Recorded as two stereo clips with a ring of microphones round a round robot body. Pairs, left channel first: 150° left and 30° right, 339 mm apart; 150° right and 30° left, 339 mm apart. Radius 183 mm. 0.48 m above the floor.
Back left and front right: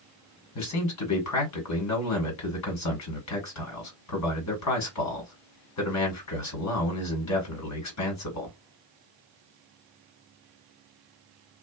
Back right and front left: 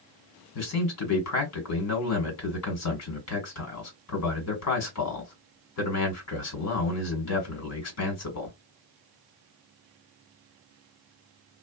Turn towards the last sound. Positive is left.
turn(degrees=175)